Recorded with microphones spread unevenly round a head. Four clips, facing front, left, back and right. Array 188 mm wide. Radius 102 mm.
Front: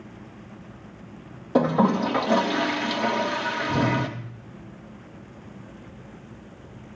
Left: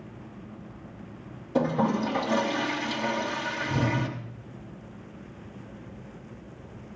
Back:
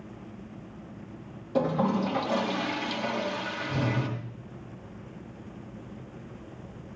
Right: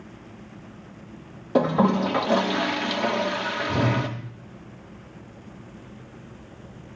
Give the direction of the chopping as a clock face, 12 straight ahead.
I don't hear chopping.